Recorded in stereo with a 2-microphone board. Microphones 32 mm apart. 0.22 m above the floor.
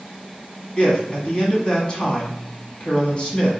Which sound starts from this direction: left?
A man speaking, at 0.8 s.